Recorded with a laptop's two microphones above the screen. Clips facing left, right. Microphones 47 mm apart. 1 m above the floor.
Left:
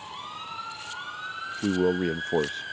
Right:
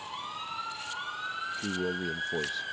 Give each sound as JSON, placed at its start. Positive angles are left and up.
{"t": 1.6, "sound": "a man speaking", "side_deg": 40}